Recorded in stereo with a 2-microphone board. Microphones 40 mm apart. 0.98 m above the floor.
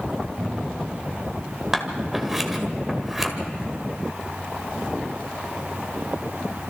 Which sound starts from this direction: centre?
Scissors, at 1.7 s.